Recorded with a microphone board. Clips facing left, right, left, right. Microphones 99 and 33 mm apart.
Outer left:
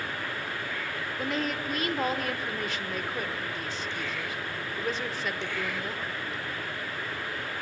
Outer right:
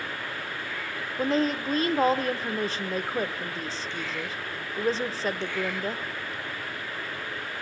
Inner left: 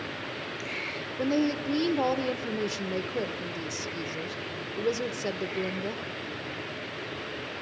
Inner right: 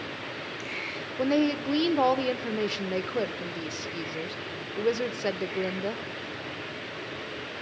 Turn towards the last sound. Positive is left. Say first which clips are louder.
# outer right 7 dB, inner right 2 dB
turn(degrees=-30)  # may be behind; listen again after turning